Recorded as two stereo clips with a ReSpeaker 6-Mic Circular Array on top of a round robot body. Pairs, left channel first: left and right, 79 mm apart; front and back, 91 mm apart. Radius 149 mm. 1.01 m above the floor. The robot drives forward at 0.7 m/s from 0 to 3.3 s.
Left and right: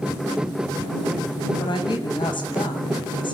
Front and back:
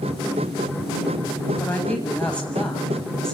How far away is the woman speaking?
About 8.5 m.